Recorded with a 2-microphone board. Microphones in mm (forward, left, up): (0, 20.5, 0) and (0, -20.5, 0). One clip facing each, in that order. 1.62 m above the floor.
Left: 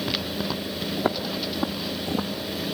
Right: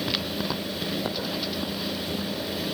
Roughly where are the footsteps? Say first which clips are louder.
Left 3 dB; left.